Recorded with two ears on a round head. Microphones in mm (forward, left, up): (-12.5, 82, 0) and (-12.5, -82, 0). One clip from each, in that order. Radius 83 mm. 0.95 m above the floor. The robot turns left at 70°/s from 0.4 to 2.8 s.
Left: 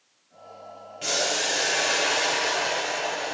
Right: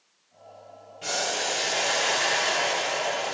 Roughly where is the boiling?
Ahead left.